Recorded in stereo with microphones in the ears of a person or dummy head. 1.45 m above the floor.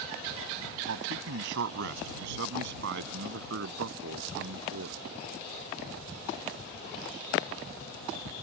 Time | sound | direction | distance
0.9 | a man speaking | 75° right (ahead or behind) | ?